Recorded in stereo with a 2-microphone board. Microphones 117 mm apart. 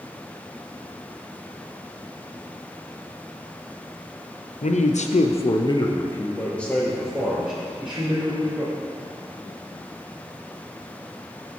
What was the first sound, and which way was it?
A man speaking, 80° left.